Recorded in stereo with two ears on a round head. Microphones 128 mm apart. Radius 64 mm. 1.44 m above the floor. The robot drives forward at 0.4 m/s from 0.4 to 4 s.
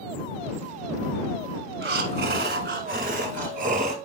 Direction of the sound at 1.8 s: 80° right.